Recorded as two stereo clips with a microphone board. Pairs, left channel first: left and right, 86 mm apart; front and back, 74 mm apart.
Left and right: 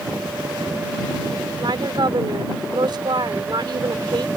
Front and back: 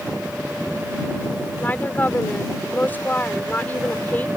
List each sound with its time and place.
1.6 s a woman speaking: 65° right